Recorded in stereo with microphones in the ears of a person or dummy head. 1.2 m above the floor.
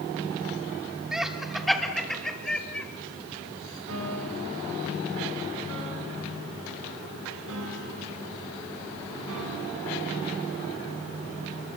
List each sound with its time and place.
1.1 s laughter: 5° right (ahead or behind), 2.5 m; by 2.9 s 5° left (ahead or behind), 3.5 m
3.9 s a piano: 85° right, 8.5 m